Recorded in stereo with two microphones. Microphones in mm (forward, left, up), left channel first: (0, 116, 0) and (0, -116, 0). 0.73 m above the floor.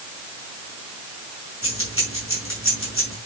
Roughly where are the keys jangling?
Left.